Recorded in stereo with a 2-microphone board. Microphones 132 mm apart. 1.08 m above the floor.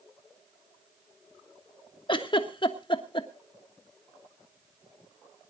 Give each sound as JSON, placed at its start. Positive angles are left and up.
{"t": 2.1, "sound": "a giggle", "side_deg": 40, "distance_m": 1.3}